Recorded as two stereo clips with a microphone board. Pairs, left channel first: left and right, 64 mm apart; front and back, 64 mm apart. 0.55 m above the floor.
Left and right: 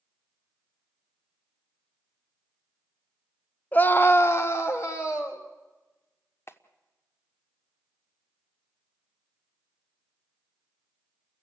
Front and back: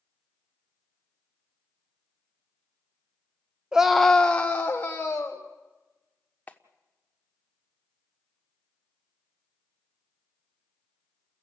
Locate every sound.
3.7 s a scream: 115° left, 0.8 m; by 5.5 s 50° left, 2 m
6.5 s a clap: 60° left, 1.1 m